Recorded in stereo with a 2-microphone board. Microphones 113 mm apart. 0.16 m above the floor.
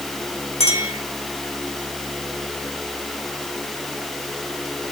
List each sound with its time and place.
0.6 s a clink: 75° left (ahead or behind), 4.5 m